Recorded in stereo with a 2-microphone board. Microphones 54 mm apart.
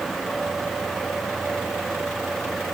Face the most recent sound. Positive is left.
No sound to turn to.